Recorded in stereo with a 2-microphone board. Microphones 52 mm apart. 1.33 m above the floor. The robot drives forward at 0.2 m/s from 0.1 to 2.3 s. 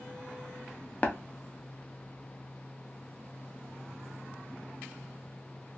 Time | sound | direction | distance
1.0 | tapping | 25° left (ahead or behind) | 0.5 m